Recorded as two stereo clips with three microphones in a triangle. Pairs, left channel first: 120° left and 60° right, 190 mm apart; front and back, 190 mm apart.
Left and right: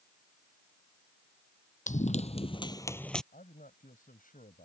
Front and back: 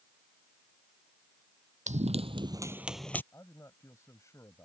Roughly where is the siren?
I don't hear a siren.